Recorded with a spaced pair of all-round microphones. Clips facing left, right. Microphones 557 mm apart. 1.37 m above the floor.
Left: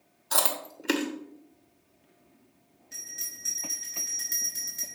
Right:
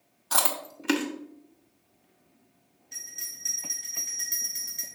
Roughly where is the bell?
Left.